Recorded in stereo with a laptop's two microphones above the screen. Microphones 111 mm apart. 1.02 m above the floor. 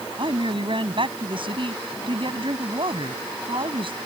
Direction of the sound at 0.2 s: 55° right (ahead or behind).